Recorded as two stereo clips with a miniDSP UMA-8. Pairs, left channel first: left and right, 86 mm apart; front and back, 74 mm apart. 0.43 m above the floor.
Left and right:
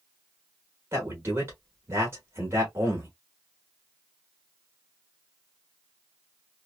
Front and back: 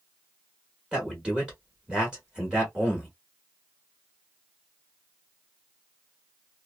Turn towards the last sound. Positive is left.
turn(degrees=-110)